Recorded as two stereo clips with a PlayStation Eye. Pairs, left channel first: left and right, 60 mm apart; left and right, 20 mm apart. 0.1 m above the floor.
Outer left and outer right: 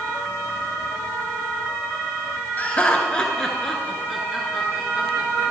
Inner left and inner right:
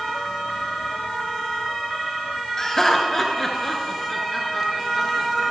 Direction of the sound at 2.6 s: 30° left (ahead or behind).